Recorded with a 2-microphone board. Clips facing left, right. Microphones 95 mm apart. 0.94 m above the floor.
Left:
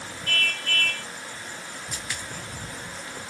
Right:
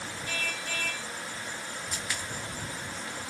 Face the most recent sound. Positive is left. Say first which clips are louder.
# left 1 dB
turn(degrees=65)  # may be behind; listen again after turning